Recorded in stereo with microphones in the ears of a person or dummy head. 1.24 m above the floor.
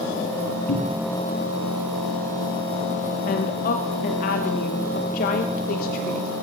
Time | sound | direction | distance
0.7 | a cupboard door | 50° left (ahead or behind) | 1.9 m
3.3 | a woman speaking | 55° left (ahead or behind) | 1.0 m